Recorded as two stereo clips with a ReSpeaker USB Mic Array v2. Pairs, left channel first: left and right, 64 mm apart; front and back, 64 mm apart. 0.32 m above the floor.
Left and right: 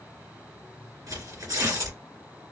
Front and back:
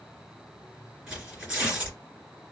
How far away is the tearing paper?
About 2.5 m.